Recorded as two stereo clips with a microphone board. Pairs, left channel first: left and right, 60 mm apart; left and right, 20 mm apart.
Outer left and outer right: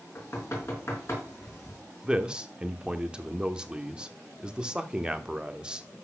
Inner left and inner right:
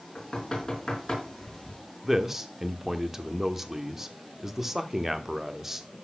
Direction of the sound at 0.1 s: 40° left (ahead or behind).